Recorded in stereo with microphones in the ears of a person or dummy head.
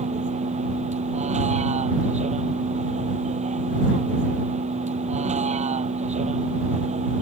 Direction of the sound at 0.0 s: 40° right (ahead or behind).